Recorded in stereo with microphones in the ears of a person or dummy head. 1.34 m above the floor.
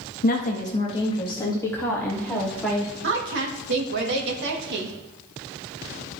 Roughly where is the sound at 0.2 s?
Left.